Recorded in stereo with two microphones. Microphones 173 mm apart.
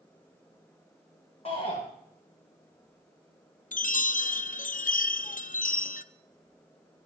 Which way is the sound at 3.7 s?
55° left (ahead or behind).